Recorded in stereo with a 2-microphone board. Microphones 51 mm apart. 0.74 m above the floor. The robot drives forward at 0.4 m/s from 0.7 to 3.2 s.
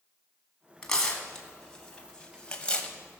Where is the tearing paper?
15° left (ahead or behind), 1.9 m; by 2.9 s 25° left (ahead or behind), 1.1 m.